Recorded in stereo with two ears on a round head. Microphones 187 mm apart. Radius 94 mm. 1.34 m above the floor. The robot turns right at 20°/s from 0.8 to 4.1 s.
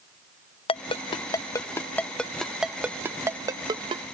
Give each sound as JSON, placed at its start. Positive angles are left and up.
{"t": 0.7, "sound": "a ringtone", "side_deg": 25}